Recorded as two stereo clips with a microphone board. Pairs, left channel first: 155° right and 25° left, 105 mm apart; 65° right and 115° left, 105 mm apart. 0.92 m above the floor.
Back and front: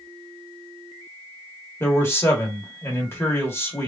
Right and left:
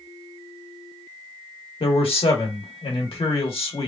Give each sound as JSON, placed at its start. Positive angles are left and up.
{"t": 1.8, "sound": "a man speaking", "azimuth_deg": -90, "distance_m": 1.4}